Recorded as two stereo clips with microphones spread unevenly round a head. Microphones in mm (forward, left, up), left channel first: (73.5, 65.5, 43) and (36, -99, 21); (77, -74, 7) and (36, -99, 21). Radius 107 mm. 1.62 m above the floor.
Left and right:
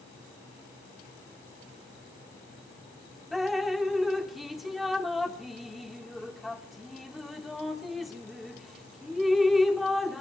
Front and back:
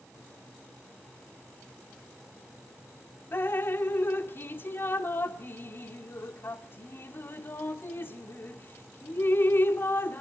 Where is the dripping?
Straight ahead, 1.4 m.